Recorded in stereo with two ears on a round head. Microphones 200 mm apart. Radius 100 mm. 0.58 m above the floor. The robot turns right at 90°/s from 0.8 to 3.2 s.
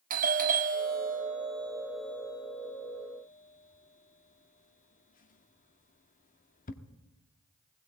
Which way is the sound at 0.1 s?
40° right (ahead or behind).